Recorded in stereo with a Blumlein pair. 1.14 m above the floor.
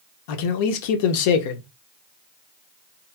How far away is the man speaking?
About 0.8 m.